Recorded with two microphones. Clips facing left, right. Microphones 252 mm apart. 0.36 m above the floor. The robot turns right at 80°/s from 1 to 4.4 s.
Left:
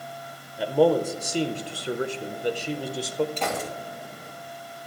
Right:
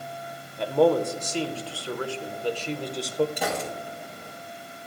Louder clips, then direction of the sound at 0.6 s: Even; 5° left (ahead or behind).